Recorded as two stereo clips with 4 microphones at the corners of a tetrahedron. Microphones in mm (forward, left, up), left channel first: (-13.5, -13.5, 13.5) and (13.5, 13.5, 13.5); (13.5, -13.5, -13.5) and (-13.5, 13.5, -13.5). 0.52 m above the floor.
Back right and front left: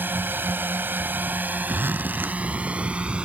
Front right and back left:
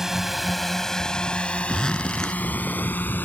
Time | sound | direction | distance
0.0 | a drone | 60° left | ?
1.7 | a zipper | 30° left | ?